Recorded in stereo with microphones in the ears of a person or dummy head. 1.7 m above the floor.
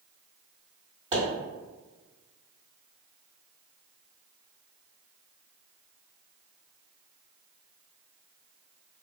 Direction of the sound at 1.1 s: 20° right (ahead or behind).